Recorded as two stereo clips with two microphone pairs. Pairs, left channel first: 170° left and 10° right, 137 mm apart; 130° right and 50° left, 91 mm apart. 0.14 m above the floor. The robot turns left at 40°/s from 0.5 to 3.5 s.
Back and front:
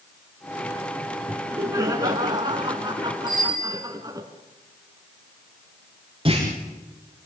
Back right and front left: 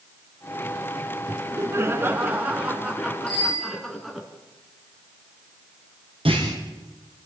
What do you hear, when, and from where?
1.3 s laughter: 50° left, 1.8 m; by 4.3 s 40° right, 1.8 m
3.3 s a bicycle bell: 150° left, 8.5 m; by 3.8 s 140° left, 8.5 m
6.2 s a clunk: 40° left, 6 m